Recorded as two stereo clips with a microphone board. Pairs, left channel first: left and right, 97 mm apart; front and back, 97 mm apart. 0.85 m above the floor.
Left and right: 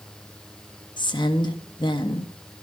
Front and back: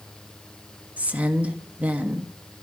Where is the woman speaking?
105° left, 1.3 m.